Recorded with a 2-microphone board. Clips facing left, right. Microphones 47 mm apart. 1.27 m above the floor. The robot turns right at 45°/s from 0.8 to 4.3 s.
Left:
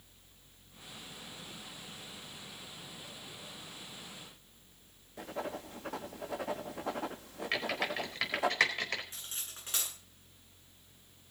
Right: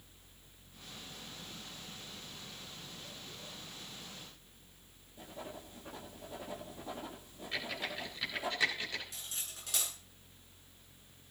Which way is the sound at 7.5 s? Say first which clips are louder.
Left 5 dB; 65° left (ahead or behind).